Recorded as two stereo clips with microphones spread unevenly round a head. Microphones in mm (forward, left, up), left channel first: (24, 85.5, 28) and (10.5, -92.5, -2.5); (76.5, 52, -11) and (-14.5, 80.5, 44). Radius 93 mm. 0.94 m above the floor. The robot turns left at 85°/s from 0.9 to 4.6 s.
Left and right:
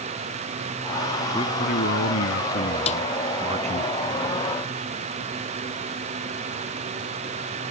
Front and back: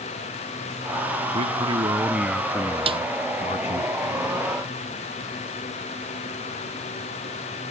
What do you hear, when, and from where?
1.3 s a man speaking: 160° left; by 3.9 s 55° right
2.9 s a snare drum: 145° left; by 3.0 s 135° left